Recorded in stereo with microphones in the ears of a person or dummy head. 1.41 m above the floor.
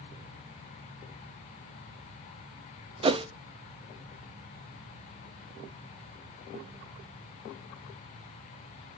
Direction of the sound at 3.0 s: 25° right (ahead or behind).